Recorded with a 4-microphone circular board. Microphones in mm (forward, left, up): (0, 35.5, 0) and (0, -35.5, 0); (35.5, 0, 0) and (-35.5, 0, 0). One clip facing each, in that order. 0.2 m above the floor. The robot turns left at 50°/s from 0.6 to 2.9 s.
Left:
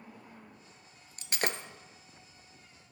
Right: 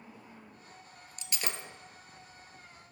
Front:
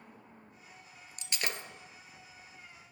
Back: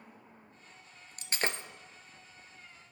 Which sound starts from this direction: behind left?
Breaking glass, at 1.2 s.